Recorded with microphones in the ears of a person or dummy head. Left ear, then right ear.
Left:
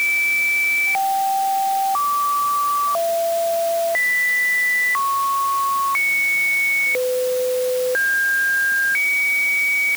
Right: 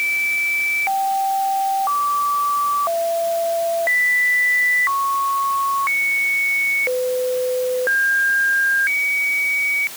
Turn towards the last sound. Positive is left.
No sound to turn to.